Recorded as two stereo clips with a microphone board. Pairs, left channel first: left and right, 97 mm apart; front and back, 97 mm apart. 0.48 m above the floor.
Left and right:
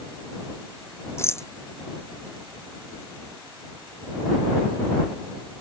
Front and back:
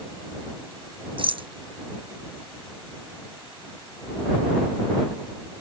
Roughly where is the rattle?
Behind left.